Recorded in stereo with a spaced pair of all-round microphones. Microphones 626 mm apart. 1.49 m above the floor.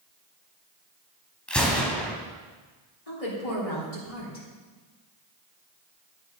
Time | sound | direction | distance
1.5 | a gunshot | centre (ahead or behind) | 2 m
3.1 | a woman speaking | 65° left (ahead or behind) | 4 m